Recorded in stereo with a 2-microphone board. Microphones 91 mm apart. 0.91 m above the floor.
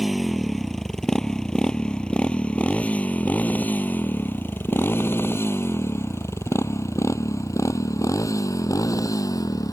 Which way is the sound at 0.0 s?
Centre (ahead or behind).